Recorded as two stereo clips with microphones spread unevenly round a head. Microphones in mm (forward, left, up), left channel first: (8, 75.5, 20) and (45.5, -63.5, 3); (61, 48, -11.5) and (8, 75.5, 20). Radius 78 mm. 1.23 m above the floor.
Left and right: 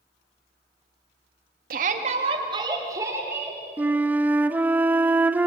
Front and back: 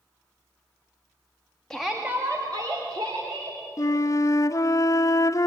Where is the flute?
5° left, 0.8 m.